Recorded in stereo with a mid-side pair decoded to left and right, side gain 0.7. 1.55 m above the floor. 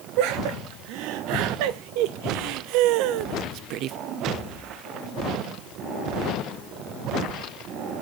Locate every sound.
0.2 s laughter: 70° right, 2.5 m